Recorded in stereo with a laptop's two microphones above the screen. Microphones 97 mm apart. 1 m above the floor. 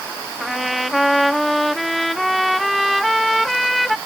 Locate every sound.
0.4 s a trumpet: centre (ahead or behind)